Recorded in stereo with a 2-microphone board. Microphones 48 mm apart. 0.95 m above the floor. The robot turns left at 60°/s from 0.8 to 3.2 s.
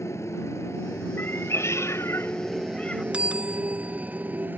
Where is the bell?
25° right (ahead or behind).